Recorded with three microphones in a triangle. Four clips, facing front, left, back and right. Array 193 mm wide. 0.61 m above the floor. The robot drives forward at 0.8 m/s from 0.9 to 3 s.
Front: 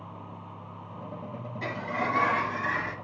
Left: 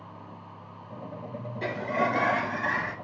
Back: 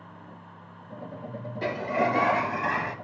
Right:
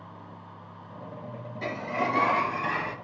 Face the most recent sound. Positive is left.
turn(degrees=165)